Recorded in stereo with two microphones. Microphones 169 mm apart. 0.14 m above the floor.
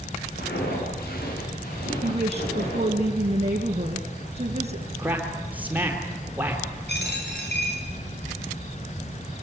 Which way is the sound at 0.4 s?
70° left (ahead or behind).